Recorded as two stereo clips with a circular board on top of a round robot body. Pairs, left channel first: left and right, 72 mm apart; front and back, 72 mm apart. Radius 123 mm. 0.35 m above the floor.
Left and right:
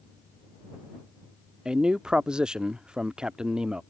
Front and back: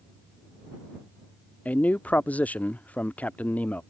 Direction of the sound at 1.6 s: 30° right.